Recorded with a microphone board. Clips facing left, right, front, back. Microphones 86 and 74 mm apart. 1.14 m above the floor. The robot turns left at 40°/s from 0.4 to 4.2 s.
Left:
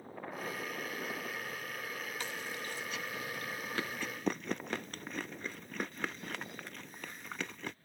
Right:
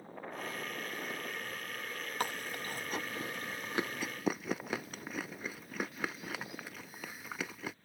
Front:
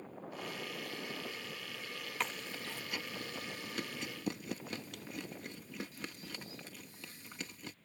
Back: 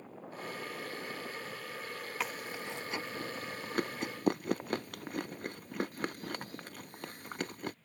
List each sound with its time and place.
2.2 s chewing: 95° right; by 7.8 s 175° right